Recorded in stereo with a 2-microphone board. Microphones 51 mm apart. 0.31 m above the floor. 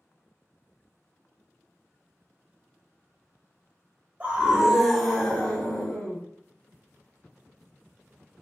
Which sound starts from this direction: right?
A scream, at 4.2 s.